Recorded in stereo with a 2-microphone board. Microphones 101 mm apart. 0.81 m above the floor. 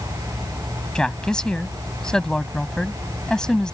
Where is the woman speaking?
10° left (ahead or behind).